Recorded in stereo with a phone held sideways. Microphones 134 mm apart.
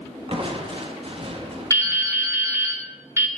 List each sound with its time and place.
0.3 s crushing: 45° right (ahead or behind), 1.3 m
1.7 s dripping: 20° right (ahead or behind), 1.1 m